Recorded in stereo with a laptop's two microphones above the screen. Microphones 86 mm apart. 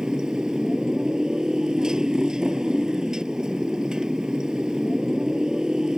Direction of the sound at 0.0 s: 10° right (ahead or behind).